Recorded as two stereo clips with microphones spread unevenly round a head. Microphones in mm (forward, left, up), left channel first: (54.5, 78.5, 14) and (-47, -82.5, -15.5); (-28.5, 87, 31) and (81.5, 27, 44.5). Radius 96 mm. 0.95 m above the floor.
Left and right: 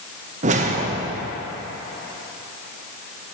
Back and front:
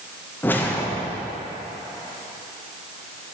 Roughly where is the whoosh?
Behind right.